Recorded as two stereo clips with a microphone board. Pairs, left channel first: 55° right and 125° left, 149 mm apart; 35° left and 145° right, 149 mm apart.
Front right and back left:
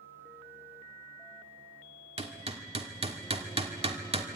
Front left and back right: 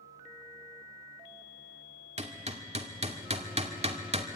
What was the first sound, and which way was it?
Hammering, 170° left.